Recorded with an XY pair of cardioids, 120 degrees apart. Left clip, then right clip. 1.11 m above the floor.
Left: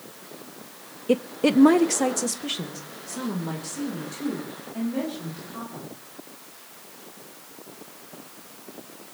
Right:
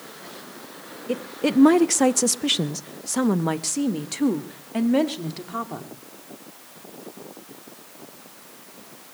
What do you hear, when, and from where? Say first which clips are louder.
1.1 s a woman speaking: left 3 dB; 30° left, 0.6 m; by 5.9 s 75° right, 2.5 m